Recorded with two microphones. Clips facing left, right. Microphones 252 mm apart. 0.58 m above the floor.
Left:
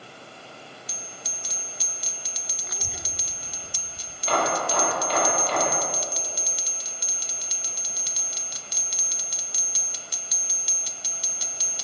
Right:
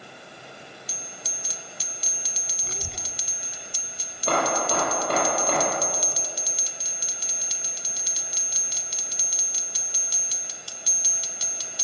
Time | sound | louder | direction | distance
2.6 | a child speaking | right 2 dB | 40° right (ahead or behind) | 0.6 m
4.3 | hammering | right 1 dB | 55° right (ahead or behind) | 8.5 m